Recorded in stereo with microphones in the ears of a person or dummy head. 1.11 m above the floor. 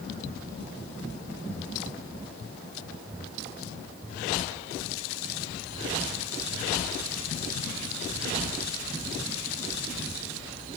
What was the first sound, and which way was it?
Only background noise.